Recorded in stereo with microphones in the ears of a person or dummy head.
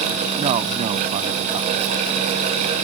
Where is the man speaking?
35° right (ahead or behind).